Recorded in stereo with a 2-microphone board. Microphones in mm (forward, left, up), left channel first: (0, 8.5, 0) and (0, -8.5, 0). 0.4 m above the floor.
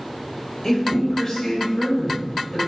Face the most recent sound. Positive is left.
turn(degrees=20)  # may be behind; listen again after turning